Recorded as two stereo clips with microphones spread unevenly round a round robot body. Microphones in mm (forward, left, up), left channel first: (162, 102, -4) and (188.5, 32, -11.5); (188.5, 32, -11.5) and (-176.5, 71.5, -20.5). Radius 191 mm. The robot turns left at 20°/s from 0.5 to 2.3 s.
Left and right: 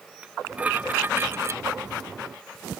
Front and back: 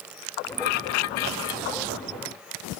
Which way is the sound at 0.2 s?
5° left.